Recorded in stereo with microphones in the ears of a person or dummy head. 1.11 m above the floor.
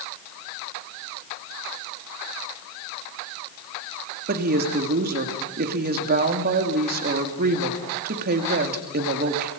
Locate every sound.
4.3 s a woman speaking: 45° right (ahead or behind), 2.5 m